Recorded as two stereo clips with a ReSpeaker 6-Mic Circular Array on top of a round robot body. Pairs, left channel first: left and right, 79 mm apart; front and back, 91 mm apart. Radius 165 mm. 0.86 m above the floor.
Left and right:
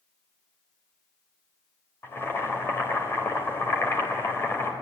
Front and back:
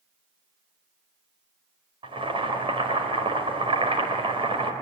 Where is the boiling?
155° left, 4.5 m.